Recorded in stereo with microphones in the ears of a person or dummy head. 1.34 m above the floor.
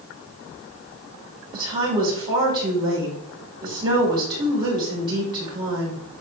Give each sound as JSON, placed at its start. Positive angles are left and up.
{"t": 1.5, "sound": "a woman speaking", "side_deg": -20, "distance_m": 4.0}